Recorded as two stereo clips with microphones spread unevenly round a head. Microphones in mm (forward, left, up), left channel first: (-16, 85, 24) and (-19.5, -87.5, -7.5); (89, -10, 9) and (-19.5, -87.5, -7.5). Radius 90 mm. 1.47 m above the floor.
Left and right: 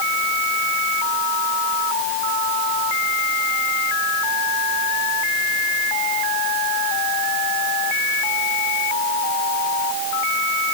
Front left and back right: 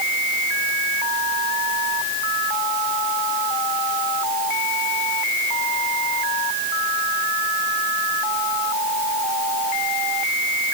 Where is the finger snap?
No finger snap in this recording.